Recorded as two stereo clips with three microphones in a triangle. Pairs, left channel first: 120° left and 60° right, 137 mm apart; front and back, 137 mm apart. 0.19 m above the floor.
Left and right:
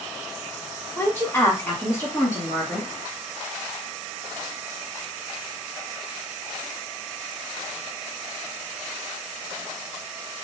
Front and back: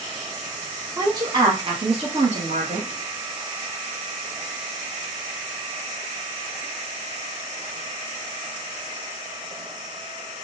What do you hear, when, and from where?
1.0 s a woman speaking: 170° left, 1.0 m; by 2.9 s 170° right, 2 m